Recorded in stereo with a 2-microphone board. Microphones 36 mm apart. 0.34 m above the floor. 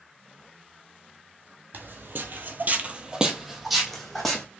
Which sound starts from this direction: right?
Footsteps, at 1.7 s.